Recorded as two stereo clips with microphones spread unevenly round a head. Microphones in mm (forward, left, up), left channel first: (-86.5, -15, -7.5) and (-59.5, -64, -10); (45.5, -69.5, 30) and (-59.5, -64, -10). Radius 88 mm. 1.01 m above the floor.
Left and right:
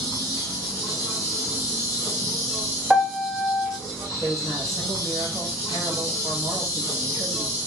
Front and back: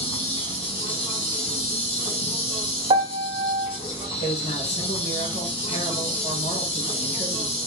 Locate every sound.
0.0 s an insect: 40° left, 1.4 m
2.9 s a piano: 135° right, 0.9 m
4.2 s a woman speaking: 20° right, 1.3 m